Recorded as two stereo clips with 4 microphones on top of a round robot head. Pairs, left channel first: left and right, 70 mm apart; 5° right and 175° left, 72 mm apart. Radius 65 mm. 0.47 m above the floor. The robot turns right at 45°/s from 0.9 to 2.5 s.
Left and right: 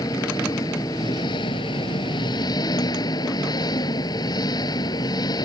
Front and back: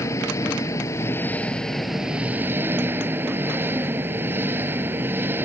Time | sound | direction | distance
0.0 | an engine running | 45° left | ?